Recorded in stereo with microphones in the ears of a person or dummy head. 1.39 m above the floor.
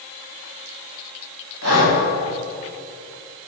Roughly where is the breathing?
Right.